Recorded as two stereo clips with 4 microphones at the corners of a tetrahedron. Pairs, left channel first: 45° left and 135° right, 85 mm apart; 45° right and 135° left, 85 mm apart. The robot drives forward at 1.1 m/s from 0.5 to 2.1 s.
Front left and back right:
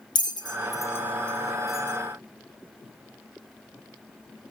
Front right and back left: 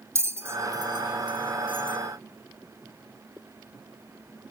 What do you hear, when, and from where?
0.1 s a bell: 75° left, 1.0 m; by 2.0 s 145° left, 1.7 m